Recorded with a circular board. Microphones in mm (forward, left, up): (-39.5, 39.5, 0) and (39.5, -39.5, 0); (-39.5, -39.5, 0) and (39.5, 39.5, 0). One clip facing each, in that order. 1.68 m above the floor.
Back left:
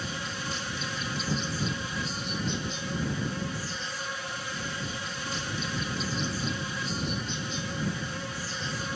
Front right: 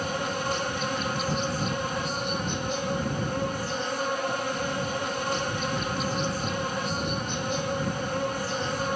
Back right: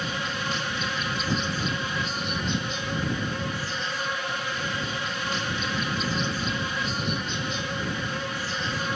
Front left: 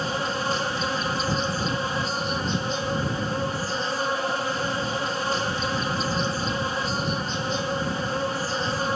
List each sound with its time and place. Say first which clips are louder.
0.0 s an insect: front right 7 dB, front left 4 dB; 10° right